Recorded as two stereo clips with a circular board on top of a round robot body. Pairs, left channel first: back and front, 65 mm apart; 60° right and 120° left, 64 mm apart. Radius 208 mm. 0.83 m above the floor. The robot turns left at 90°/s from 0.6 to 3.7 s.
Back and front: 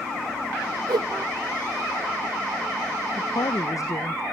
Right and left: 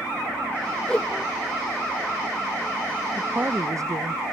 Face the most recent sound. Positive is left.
turn(degrees=150)